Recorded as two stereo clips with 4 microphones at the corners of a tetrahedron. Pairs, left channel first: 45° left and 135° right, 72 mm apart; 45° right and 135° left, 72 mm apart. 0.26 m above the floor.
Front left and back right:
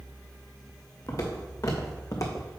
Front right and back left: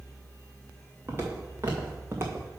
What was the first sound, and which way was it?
Footsteps, 80° left.